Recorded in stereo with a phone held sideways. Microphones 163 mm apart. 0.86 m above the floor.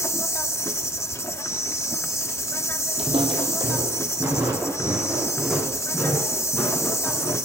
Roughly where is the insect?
Centre.